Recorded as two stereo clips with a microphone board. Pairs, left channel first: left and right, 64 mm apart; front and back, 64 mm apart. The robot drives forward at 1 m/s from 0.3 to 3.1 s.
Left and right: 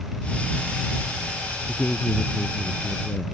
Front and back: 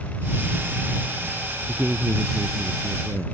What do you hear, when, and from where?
1.7 s a man speaking: 140° left; by 3.2 s 150° left